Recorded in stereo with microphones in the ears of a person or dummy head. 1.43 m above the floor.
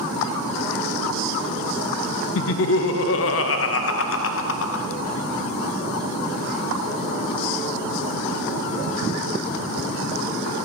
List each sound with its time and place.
2.4 s laughter: 60° left (ahead or behind), 0.5 m